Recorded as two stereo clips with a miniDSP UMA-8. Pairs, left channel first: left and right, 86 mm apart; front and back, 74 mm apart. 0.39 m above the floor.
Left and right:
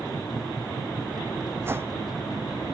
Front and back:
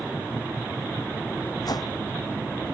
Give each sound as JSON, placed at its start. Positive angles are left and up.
{"t": 1.6, "sound": "a whoosh", "azimuth_deg": -30}